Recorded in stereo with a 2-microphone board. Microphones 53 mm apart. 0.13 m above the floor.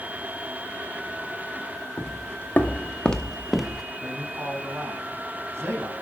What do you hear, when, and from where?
2.0 s footsteps: 50° left (ahead or behind), 1.9 m; by 3.8 s 5° right (ahead or behind), 1.6 m
4.0 s a man speaking: 65° right (ahead or behind), 6.5 m